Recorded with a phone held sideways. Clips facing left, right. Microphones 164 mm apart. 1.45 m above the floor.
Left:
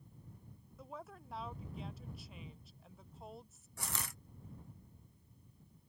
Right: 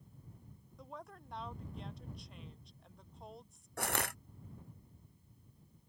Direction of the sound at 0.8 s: 5° left (ahead or behind).